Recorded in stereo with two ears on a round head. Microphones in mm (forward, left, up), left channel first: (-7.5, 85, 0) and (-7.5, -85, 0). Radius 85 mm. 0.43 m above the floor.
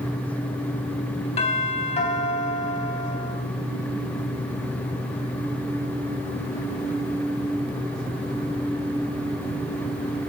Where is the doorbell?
35° left (ahead or behind), 4 m.